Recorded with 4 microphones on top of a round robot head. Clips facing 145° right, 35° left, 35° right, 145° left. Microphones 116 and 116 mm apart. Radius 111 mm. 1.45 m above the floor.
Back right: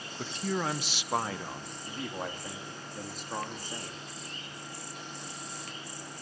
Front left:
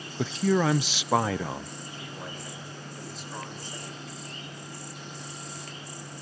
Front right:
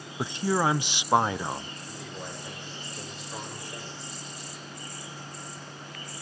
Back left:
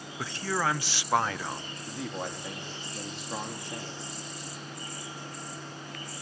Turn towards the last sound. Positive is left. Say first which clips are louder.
# back right 3 dB, back left 4 dB
turn(degrees=170)